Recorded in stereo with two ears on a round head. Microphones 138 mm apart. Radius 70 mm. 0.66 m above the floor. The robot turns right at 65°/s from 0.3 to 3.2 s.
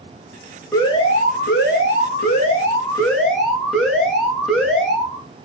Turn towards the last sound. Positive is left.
turn(degrees=180)